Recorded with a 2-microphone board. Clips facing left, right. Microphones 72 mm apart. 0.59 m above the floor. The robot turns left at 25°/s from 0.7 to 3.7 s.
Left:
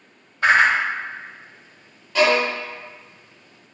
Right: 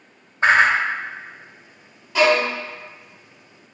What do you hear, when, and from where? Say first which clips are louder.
0.4 s a whoosh: right 1 dB; 25° right (ahead or behind), 0.6 m
2.1 s a violin: right 1 dB; 5° right (ahead or behind), 1.6 m; by 2.4 s centre (ahead or behind), 1.6 m